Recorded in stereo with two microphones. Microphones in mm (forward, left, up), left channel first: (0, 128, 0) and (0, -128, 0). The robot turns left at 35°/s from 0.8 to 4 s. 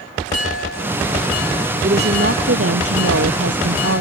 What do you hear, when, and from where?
1.8 s a woman speaking: 40° right; by 4.0 s 115° right